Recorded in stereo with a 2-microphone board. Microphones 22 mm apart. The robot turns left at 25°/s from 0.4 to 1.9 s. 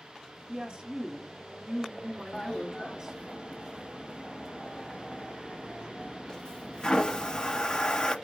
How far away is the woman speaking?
About 1.3 m.